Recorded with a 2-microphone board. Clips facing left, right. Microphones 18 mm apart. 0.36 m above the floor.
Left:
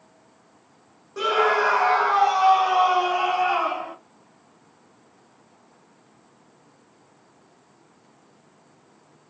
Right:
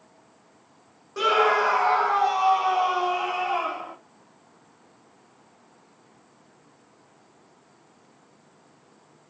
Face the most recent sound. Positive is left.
turn(degrees=65)  # may be behind; listen again after turning